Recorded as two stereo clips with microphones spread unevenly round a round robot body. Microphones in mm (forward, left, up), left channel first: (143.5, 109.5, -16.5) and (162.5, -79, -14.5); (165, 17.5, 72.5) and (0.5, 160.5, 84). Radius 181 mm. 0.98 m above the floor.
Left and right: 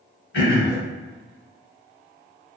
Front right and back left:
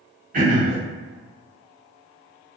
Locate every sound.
0.3 s throat clearing: 90° left, 1.8 m